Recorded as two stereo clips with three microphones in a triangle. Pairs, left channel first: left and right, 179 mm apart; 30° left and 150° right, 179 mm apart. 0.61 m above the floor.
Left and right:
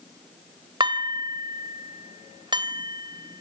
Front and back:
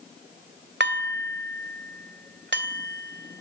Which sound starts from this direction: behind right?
Dishes clattering, at 0.8 s.